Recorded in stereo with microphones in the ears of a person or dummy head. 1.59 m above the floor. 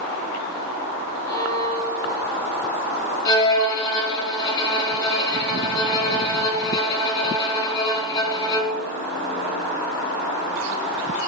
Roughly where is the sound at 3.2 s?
Left.